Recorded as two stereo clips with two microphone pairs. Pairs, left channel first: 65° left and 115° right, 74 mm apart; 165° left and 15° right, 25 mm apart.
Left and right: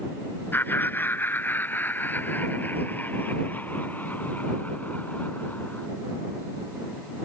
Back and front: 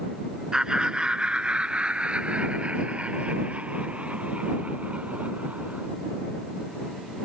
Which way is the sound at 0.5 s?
20° left.